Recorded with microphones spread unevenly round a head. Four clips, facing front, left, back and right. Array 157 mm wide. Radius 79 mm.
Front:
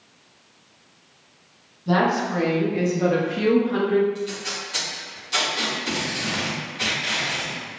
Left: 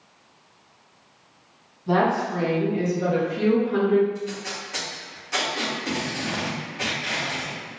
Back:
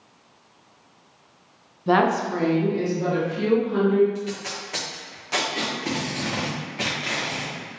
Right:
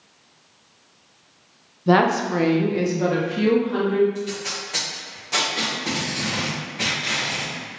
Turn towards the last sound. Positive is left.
turn(degrees=-160)